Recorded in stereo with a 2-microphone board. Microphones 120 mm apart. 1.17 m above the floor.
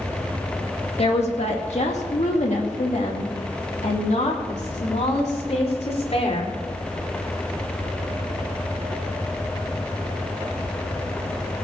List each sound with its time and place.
1.0 s a woman speaking: 55° left (ahead or behind), 2 m; by 6.6 s 60° left (ahead or behind), 4 m